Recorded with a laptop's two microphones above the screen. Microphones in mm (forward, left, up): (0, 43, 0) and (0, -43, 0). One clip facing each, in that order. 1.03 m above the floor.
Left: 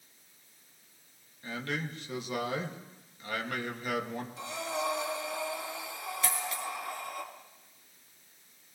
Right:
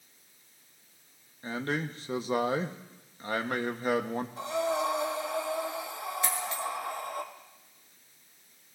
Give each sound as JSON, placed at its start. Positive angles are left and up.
{"t": 1.4, "sound": "a man speaking", "side_deg": -35, "distance_m": 1.2}
{"t": 4.4, "sound": "breathing", "side_deg": -40, "distance_m": 1.7}
{"t": 6.2, "sound": "a dropped coin", "side_deg": -25, "distance_m": 2.0}